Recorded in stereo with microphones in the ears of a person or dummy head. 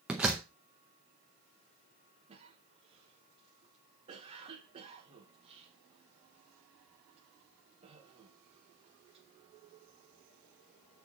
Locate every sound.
0.1 s a door slam: 5° right (ahead or behind), 0.6 m
2.3 s a cough: 35° right (ahead or behind), 1.8 m